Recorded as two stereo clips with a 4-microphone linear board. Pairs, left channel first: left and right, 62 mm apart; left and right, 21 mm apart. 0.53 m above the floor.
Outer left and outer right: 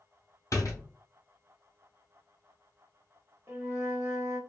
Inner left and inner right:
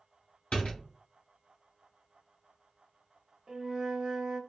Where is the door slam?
55° left (ahead or behind), 1.2 m.